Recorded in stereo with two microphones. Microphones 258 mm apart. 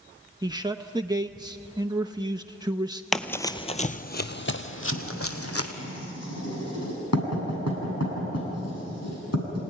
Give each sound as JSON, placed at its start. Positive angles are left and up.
{"t": 0.4, "sound": "a man speaking", "side_deg": -15, "distance_m": 0.7}
{"t": 3.1, "sound": "running footsteps", "side_deg": 0, "distance_m": 0.9}
{"t": 4.9, "sound": "writing", "side_deg": 75, "distance_m": 8.0}